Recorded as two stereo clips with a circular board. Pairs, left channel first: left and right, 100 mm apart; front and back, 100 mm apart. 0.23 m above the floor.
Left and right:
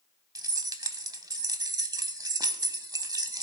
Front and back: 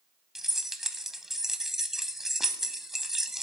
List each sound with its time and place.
0.3 s keys jangling: 95° right, 0.8 m